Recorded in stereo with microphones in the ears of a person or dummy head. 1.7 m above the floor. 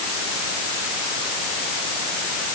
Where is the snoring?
I don't hear snoring.